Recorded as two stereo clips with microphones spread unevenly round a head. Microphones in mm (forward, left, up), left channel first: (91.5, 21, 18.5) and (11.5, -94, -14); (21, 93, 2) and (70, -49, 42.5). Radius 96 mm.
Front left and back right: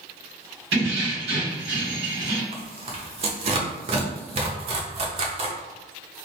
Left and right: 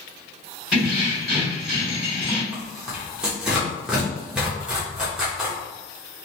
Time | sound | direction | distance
0.7 | keys jangling | 160° right | 1.6 m
2.5 | tearing paper | 120° right | 0.6 m